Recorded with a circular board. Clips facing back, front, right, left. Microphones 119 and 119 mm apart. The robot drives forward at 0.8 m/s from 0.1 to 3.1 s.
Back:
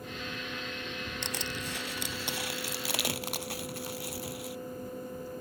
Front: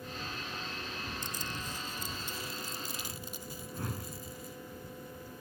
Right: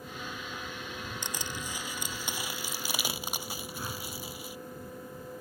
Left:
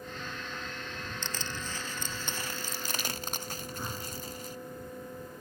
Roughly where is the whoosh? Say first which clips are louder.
Back 2 dB, left 1 dB; ahead.